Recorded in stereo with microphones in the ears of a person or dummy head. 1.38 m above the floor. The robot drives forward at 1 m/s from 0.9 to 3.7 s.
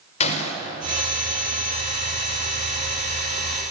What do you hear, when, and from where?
0.2 s a gunshot: 40° left (ahead or behind), 4.5 m